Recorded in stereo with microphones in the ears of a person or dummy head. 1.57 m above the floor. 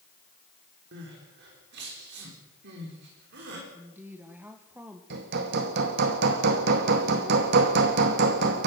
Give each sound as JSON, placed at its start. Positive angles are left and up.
{"t": 0.9, "sound": "crying", "side_deg": -55, "distance_m": 5.0}
{"t": 3.7, "sound": "a woman speaking", "side_deg": -10, "distance_m": 1.6}
{"t": 5.1, "sound": "hammering", "side_deg": -55, "distance_m": 2.0}